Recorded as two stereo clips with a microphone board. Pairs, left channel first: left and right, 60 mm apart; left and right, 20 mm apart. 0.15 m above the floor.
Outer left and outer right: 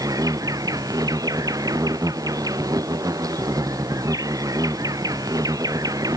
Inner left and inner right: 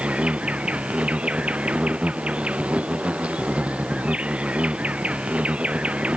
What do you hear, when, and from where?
0.0 s an insect: 85° right